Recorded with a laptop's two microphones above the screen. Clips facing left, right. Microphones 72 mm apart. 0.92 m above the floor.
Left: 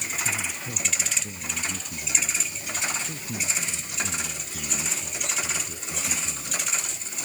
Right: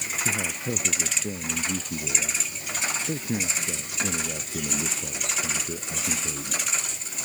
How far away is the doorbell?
No doorbell in this recording.